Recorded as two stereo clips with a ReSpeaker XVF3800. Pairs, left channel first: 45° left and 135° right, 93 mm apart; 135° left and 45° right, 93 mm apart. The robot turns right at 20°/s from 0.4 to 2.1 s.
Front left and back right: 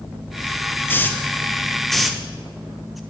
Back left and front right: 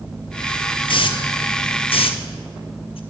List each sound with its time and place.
0.9 s a hiss: 110° left, 0.5 m; by 3.0 s 135° left, 0.5 m